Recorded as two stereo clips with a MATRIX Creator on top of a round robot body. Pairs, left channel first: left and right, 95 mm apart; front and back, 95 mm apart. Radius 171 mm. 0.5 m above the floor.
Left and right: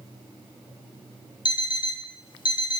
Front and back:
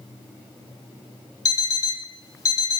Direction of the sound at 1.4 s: 55° left.